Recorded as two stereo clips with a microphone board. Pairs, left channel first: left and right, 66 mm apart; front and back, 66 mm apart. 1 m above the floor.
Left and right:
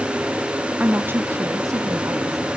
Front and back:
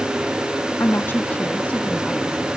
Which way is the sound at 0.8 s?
30° right.